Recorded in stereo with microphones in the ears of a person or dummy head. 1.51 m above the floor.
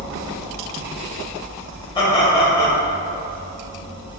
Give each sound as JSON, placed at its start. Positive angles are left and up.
{"t": 1.9, "sound": "laughter", "side_deg": 25, "distance_m": 1.0}